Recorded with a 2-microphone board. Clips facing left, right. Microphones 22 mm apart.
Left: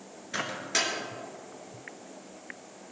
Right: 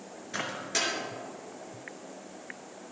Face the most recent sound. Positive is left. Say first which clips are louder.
# left 2 dB
turn(degrees=15)  # may be behind; listen again after turning